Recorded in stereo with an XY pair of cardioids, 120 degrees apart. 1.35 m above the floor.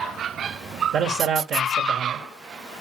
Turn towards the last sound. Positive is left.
turn(degrees=-60)